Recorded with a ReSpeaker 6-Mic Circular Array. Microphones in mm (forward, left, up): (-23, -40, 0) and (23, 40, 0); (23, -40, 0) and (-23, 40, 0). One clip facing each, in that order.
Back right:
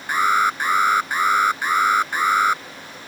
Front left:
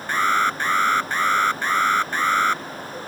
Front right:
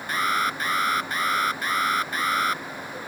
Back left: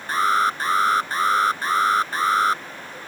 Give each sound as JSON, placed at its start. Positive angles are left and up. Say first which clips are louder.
{"t": 0.1, "sound": "an alarm", "louder": "back right 2 dB, back left 5 dB", "azimuth_deg": 165}